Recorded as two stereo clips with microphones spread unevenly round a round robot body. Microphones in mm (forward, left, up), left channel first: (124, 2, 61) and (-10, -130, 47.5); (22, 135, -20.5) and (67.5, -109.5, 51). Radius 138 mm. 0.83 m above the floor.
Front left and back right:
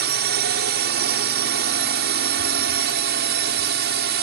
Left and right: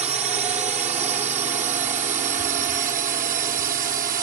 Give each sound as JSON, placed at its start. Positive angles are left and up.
{"t": 0.0, "sound": "a drone", "azimuth_deg": -155}